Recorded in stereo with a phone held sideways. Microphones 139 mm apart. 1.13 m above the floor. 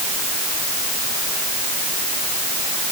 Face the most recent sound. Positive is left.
No sound to turn to.